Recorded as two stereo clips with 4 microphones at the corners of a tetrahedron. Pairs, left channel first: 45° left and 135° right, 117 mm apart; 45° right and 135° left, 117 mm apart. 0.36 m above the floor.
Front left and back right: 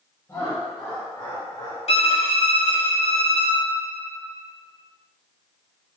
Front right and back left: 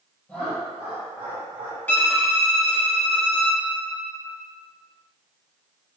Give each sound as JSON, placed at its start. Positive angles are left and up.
{"t": 0.3, "sound": "laughter", "azimuth_deg": 10, "distance_m": 0.9}
{"t": 1.9, "sound": "a violin", "azimuth_deg": 30, "distance_m": 0.8}